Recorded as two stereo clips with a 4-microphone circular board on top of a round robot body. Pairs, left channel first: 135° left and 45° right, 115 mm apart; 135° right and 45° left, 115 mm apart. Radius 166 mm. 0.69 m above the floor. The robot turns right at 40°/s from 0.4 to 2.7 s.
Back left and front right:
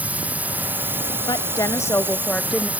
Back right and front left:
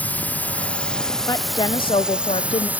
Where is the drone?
90° right; by 2.8 s straight ahead.